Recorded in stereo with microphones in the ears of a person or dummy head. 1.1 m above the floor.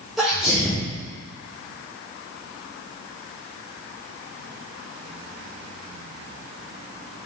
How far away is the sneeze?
About 0.6 m.